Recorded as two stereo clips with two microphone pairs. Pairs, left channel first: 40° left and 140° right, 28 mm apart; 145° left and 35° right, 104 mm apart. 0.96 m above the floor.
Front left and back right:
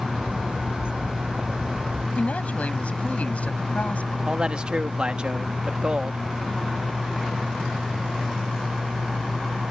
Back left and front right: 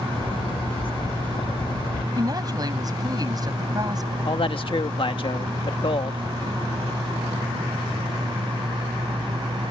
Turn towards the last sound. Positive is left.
turn(degrees=170)